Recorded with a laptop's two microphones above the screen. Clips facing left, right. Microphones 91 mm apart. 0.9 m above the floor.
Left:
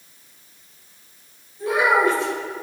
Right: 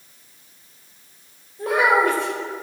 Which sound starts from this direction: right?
A child speaking, at 1.6 s.